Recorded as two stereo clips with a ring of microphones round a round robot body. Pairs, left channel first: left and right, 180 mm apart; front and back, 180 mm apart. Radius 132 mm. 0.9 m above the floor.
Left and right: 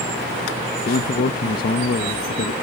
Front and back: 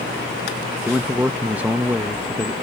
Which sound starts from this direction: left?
A man speaking, at 0.8 s.